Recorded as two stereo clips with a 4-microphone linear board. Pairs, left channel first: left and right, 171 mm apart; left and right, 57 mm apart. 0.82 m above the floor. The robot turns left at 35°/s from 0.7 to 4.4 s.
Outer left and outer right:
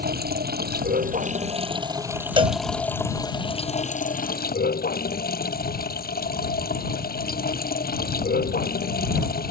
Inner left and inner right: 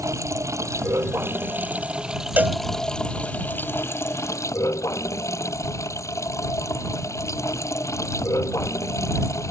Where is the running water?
115° right; by 9.5 s 115° left.